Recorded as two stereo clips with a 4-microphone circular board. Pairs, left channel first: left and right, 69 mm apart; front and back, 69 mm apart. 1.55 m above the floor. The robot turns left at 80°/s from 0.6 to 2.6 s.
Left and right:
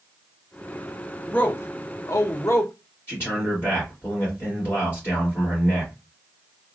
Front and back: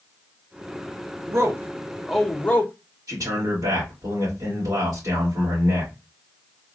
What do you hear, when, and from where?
1.3 s a man speaking: 160° left, 0.7 m; by 2.7 s 55° left, 0.7 m
3.1 s a man speaking: 145° left, 2 m